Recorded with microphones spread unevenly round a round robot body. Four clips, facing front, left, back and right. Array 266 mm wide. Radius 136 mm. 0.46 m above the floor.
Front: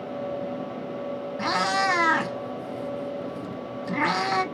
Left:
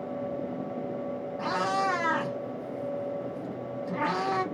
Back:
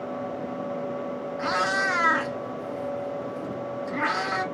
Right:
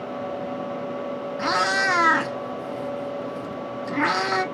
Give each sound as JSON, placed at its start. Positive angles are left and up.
{"t": 1.4, "sound": "a cat meowing", "azimuth_deg": -40, "distance_m": 2.5}